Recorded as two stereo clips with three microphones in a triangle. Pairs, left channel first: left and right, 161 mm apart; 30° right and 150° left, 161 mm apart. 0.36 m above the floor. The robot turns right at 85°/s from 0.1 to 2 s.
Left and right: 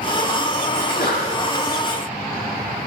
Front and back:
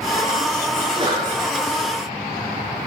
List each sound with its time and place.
0.8 s a sneeze: 75° left, 5 m; by 1.3 s 115° left, 5 m